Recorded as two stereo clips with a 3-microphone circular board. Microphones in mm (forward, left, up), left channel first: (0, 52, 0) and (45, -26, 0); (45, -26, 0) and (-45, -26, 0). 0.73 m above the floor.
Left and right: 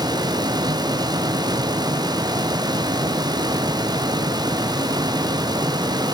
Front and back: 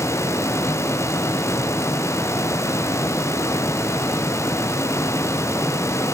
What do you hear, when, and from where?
Only background noise.